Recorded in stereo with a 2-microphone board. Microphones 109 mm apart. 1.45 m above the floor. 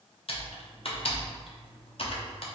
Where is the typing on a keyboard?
60° left (ahead or behind), 0.5 m.